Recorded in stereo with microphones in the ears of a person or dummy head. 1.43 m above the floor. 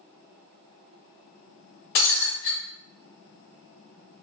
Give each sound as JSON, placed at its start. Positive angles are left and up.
{"t": 1.9, "sound": "breaking glass", "side_deg": 50, "distance_m": 1.4}